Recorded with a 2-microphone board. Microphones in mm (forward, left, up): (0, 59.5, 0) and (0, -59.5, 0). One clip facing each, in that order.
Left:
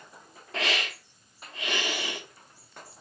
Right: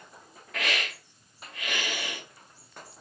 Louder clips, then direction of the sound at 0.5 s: Left 2 dB; 30° left (ahead or behind).